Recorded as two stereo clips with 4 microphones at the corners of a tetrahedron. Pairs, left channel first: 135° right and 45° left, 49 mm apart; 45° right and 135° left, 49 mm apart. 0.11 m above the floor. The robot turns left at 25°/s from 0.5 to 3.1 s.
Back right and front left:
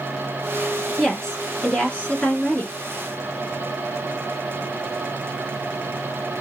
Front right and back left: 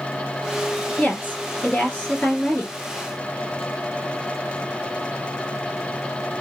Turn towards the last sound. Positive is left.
turn(degrees=-120)